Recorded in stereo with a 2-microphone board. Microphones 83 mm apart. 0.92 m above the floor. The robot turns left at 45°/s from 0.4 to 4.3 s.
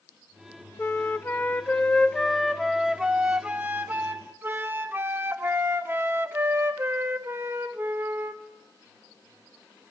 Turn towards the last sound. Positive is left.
turn(degrees=-25)  # may be behind; listen again after turning